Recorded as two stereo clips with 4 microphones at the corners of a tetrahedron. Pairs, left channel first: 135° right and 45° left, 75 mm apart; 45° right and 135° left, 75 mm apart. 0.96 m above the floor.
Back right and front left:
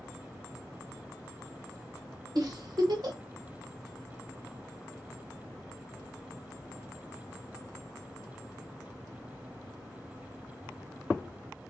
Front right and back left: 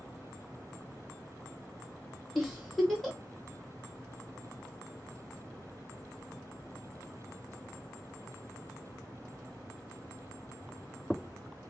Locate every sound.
2.4 s a giggle: 40° left, 1.8 m